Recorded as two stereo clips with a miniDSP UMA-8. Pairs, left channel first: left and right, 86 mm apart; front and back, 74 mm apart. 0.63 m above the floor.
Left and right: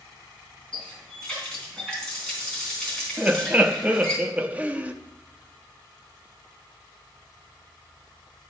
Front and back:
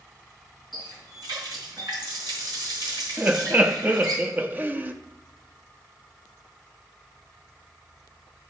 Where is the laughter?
145° right, 0.6 m.